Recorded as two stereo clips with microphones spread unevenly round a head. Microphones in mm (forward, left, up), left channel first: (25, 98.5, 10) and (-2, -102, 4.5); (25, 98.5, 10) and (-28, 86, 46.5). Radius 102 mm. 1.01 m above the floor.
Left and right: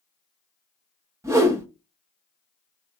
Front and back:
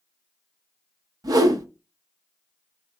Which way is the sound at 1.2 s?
175° right.